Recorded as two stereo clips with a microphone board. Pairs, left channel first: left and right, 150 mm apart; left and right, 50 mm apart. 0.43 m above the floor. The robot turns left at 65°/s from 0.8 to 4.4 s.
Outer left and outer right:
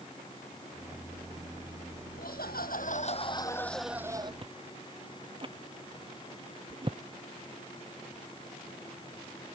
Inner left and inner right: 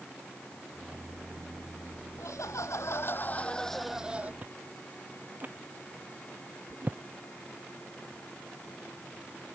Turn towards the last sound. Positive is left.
turn(degrees=-35)  # may be behind; listen again after turning